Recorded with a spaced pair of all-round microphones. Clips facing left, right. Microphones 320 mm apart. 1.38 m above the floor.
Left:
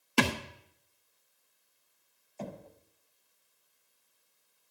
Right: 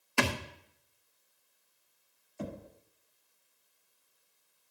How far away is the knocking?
About 0.9 m.